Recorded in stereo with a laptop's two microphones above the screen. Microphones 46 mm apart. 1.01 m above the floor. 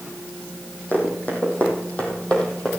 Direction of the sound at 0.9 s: 40° left (ahead or behind).